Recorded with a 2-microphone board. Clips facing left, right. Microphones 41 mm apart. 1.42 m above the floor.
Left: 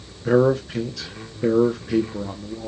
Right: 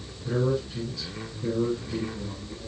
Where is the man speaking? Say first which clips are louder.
Left 9 dB; 75° left (ahead or behind), 1.0 m.